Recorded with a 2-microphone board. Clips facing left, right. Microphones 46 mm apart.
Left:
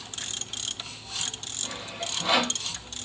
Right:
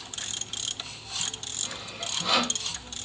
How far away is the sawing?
About 1.5 m.